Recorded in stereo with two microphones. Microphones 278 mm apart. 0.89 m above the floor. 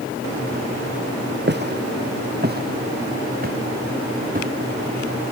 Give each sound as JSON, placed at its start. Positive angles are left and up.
{"t": 1.5, "sound": "footsteps", "side_deg": -40}